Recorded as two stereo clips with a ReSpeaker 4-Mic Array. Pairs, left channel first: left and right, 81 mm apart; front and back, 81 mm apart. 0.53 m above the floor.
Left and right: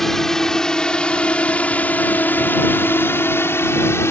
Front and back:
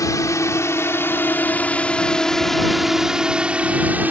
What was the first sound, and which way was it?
A drone, 5° left.